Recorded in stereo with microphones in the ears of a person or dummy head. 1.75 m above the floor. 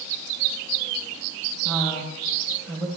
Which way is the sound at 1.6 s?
10° left (ahead or behind).